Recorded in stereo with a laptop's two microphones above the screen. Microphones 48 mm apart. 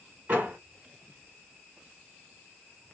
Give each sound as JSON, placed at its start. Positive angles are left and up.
{"t": 0.3, "sound": "a door slam", "side_deg": -35, "distance_m": 2.0}